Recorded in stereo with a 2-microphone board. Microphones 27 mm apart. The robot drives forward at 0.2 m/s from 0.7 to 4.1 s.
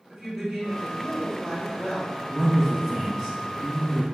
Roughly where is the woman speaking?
Centre.